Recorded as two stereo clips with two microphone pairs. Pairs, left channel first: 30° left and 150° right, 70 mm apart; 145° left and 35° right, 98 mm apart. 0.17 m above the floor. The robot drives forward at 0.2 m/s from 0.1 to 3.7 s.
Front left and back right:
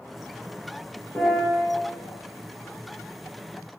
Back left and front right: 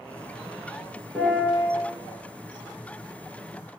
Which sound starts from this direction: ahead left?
A piano, at 1.1 s.